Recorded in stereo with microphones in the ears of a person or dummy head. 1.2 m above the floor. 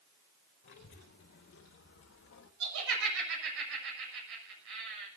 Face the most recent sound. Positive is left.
turn(degrees=-70)  # may be behind; listen again after turning